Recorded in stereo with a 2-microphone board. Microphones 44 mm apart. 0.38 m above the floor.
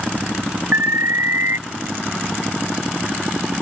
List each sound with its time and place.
0.7 s an alarm: 75° right (ahead or behind)